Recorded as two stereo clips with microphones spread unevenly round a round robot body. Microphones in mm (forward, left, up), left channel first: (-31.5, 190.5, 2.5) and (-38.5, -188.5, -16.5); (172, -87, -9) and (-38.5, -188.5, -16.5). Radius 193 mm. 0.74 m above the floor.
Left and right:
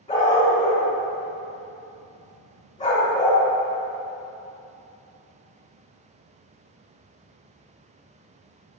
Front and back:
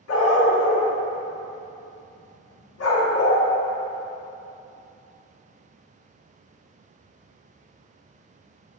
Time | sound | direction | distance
0.1 | a dog barking | 10° left | 2.5 m